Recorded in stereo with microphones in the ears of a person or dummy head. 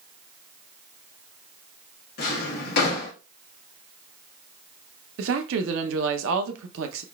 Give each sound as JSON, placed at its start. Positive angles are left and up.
{"t": 2.2, "sound": "a drawer", "side_deg": 55, "distance_m": 0.9}
{"t": 5.2, "sound": "a woman speaking", "side_deg": -75, "distance_m": 0.7}